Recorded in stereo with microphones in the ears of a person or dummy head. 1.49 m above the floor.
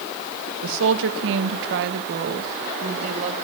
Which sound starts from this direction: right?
A woman speaking, at 0.6 s.